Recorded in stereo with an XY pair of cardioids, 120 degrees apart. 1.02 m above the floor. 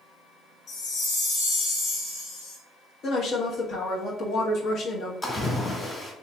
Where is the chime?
60° left, 1.7 m.